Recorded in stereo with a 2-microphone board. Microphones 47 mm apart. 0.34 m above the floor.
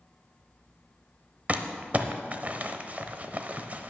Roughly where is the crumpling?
Right.